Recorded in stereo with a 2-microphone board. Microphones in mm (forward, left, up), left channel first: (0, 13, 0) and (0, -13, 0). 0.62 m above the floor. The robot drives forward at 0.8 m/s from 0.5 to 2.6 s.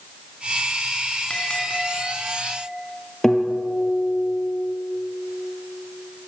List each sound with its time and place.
1.3 s a bell: 35° left (ahead or behind), 5 m; by 2.7 s 30° left (ahead or behind), 6 m
3.2 s a guitar: 15° left (ahead or behind), 4.5 m